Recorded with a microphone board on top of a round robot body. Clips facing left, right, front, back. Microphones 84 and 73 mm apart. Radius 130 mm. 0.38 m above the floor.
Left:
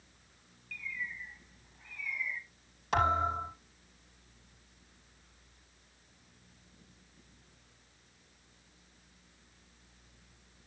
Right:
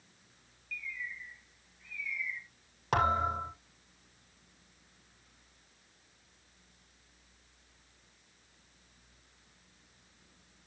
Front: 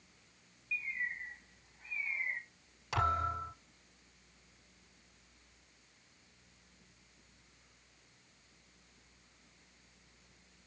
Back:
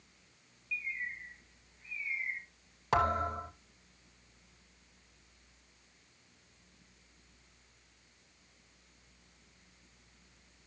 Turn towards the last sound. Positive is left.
turn(degrees=-135)